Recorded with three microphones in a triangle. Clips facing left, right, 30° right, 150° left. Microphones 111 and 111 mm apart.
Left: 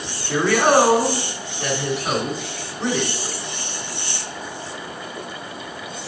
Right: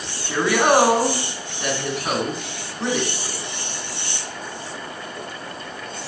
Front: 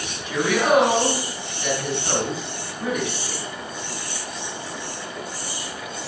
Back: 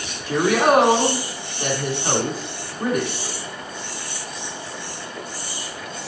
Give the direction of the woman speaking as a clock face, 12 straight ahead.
5 o'clock.